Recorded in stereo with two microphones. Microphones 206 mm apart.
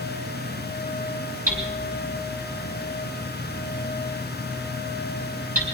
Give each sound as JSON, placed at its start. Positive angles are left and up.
{"t": 1.5, "sound": "hammering", "side_deg": -40, "distance_m": 4.0}